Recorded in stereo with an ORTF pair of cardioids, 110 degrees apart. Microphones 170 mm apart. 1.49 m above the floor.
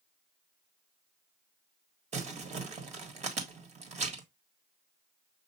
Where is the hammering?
I don't hear hammering.